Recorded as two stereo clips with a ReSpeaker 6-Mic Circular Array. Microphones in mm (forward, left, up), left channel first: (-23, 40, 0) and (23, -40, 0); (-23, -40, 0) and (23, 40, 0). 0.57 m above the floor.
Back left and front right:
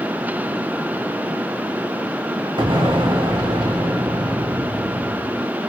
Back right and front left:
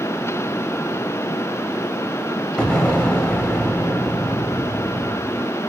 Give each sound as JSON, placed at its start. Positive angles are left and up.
{"t": 2.6, "sound": "an explosion", "azimuth_deg": -40, "distance_m": 1.0}